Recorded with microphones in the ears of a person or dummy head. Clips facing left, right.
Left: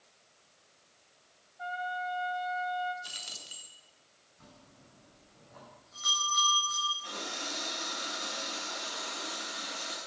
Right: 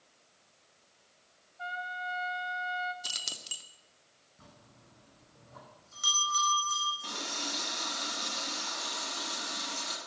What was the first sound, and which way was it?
A trumpet, 40° right (ahead or behind).